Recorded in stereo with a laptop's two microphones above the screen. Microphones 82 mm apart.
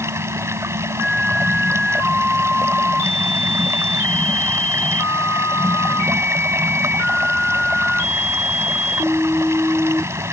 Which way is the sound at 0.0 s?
35° right (ahead or behind).